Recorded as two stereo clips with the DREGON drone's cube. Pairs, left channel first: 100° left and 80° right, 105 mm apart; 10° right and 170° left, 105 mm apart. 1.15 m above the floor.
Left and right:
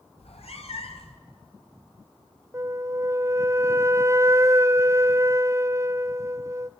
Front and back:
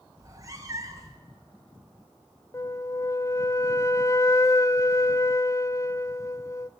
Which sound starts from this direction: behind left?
A cat meowing, at 0.2 s.